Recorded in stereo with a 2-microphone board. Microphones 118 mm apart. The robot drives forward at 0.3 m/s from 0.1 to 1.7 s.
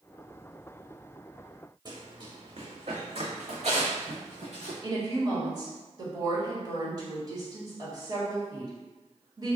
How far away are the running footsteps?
About 1.3 m.